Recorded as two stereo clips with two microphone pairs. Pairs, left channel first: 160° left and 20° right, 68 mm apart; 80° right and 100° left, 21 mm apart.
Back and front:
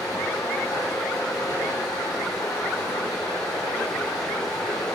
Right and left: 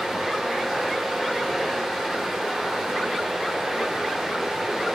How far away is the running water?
About 8 m.